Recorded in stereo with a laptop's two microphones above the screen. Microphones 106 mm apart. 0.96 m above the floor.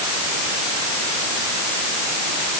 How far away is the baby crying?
No baby crying in this recording.